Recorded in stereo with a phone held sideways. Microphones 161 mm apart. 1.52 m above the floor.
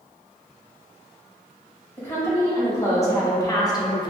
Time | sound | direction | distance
2.0 | a woman speaking | 15° left (ahead or behind) | 1.8 m